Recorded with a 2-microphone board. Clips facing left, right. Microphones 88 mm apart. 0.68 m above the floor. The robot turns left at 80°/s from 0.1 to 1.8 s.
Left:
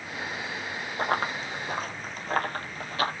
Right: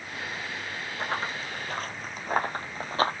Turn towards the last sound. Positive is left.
turn(degrees=-35)  # may be behind; listen again after turning